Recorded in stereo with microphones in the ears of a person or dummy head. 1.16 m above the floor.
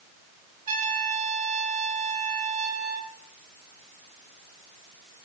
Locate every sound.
0.7 s a trumpet: 50° right (ahead or behind), 4 m